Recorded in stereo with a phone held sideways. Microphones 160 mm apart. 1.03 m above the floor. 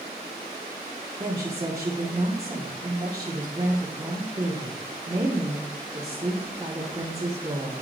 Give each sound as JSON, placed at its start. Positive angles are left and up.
{"t": 1.2, "sound": "a woman speaking", "side_deg": -35, "distance_m": 1.9}